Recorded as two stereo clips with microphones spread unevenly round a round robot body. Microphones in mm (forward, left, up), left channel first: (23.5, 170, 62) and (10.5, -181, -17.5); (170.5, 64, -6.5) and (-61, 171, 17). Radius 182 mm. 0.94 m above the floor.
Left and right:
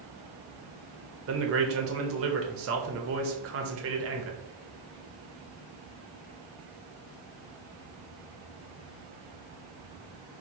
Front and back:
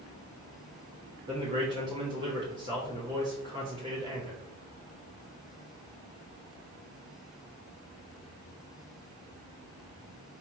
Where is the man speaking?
125° right, 0.8 m.